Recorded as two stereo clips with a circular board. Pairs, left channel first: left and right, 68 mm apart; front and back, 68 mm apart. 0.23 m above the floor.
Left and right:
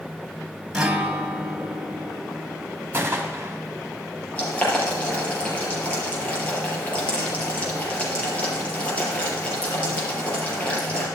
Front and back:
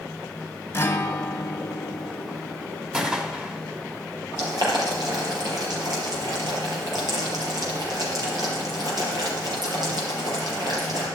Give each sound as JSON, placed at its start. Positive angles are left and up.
{"t": 0.7, "sound": "a guitar", "azimuth_deg": -20, "distance_m": 1.1}
{"t": 2.9, "sound": "a gunshot", "azimuth_deg": -115, "distance_m": 1.8}
{"t": 4.4, "sound": "boiling", "azimuth_deg": 160, "distance_m": 5.0}